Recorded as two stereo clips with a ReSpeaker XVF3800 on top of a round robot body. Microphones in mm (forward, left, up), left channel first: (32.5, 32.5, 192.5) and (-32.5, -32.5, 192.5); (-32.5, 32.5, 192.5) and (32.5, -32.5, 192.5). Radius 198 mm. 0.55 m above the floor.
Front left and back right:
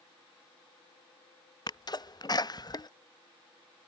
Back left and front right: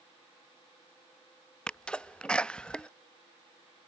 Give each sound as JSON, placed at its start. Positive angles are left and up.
{"t": 1.7, "sound": "a sneeze", "azimuth_deg": 55}